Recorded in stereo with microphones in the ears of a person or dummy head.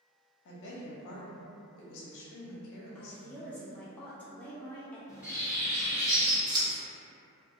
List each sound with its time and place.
0.5 s a woman speaking: 65° left (ahead or behind), 0.8 m
3.0 s a woman speaking: 10° left (ahead or behind), 0.6 m
5.1 s a bird: 5° right (ahead or behind), 1.3 m
6.5 s scissors: 20° right (ahead or behind), 0.8 m